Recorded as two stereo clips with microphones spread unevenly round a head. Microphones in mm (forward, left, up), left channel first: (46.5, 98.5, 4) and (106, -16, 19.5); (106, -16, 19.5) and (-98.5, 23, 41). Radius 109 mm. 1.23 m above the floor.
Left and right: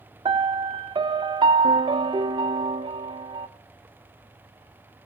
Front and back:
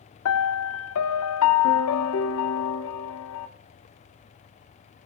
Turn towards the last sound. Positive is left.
turn(degrees=-20)